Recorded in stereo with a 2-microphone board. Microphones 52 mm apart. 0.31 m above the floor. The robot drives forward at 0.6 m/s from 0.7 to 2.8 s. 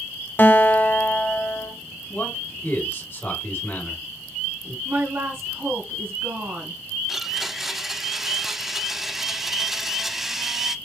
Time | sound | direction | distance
0.4 | a guitar | 45° left (ahead or behind) | 0.6 m
2.1 | a man speaking | 55° left (ahead or behind) | 2.5 m
4.8 | a woman speaking | 50° right (ahead or behind) | 1.7 m
7.1 | a blender | 5° right (ahead or behind) | 0.5 m